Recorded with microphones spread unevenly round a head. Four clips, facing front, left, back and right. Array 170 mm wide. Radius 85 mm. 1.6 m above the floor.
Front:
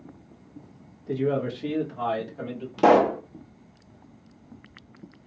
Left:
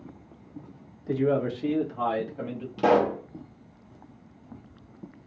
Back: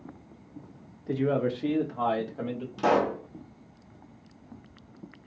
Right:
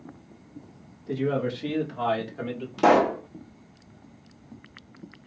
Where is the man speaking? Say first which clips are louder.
Left 2 dB, front 1 dB; 165° left, 1.3 m; by 2.7 s 160° right, 1.9 m.